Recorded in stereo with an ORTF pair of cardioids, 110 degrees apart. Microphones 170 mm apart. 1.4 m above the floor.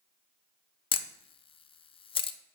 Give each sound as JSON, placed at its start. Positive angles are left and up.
{"t": 0.9, "sound": "a camera shutter", "azimuth_deg": 30, "distance_m": 0.7}